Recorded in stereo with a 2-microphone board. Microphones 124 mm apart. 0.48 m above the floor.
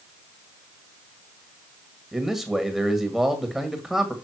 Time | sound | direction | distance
2.1 | a man speaking | centre (ahead or behind) | 1.7 m